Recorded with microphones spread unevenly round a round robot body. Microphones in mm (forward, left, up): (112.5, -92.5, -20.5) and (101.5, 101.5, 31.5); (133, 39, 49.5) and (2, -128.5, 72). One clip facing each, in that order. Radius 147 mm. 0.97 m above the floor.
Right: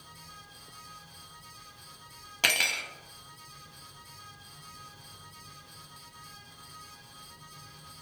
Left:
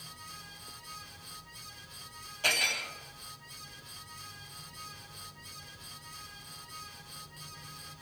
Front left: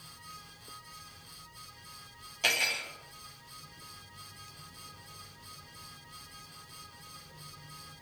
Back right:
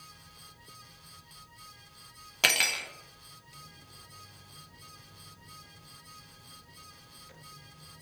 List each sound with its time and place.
2.4 s cutlery clinking: 105° right, 0.6 m